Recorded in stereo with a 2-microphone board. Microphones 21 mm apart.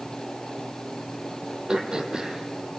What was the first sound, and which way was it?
Throat clearing, 35° right (ahead or behind).